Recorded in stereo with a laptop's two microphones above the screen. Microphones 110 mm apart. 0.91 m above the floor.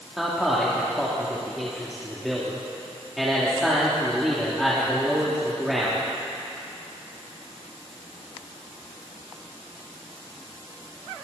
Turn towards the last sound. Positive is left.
turn(degrees=0)  # may be behind; listen again after turning